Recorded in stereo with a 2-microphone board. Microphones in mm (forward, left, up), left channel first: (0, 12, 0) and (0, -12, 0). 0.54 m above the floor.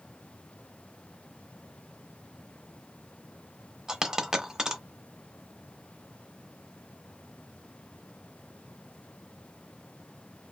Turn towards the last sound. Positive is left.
turn(degrees=-20)  # may be behind; listen again after turning